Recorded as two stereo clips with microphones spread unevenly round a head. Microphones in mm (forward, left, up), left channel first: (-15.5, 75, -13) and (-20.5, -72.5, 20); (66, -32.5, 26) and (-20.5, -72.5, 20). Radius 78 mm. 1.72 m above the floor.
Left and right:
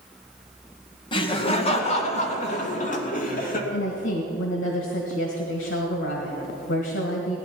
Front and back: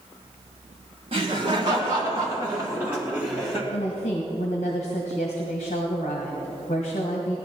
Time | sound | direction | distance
1.1 | laughter | 150° left | 1.9 m
3.7 | a woman speaking | 65° left | 1.7 m